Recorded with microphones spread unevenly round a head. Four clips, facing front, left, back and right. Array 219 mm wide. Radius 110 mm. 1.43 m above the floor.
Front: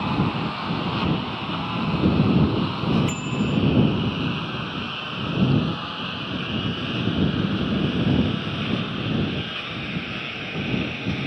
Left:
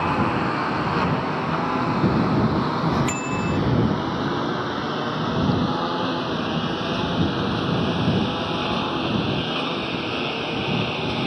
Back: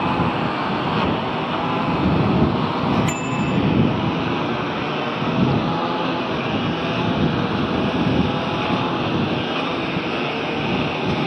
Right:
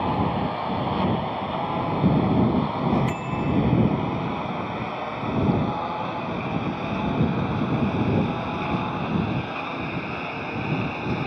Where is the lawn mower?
140° left; by 11.3 s 165° left.